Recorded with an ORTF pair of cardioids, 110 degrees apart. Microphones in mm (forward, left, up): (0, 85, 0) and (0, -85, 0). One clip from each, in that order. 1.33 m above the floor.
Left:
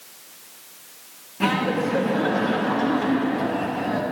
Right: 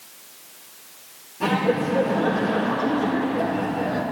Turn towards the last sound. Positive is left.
turn(degrees=45)